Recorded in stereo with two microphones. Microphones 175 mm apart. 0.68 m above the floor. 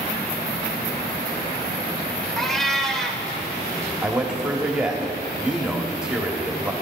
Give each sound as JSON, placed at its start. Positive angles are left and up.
{"t": 2.4, "sound": "a cat meowing", "side_deg": 5, "distance_m": 1.3}
{"t": 4.0, "sound": "a man speaking", "side_deg": -5, "distance_m": 1.6}